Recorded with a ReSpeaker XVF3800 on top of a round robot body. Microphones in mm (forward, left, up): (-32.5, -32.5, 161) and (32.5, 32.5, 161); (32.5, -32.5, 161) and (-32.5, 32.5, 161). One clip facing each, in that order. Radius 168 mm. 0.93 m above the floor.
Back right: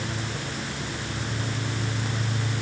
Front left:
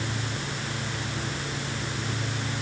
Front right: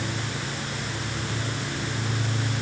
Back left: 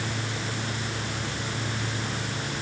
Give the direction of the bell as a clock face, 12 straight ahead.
No bell in this recording.